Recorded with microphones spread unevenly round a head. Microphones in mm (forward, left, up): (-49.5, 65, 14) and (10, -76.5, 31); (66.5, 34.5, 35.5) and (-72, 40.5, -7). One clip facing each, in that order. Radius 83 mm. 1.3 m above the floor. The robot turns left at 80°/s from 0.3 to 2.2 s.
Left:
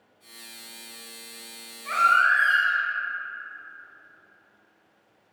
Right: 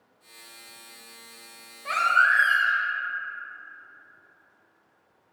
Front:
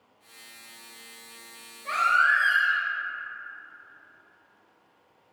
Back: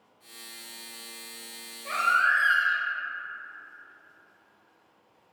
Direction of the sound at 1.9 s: 110° right.